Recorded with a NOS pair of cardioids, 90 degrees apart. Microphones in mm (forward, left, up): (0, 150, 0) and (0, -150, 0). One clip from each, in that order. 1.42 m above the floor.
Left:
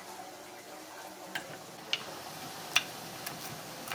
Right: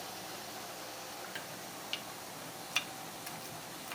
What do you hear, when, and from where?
1.4 s chopping: 30° left, 0.5 m